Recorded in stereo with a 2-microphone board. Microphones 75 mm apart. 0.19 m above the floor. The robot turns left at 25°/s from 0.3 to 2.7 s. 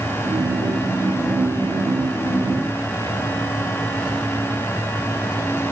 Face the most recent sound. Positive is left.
No sound to turn to.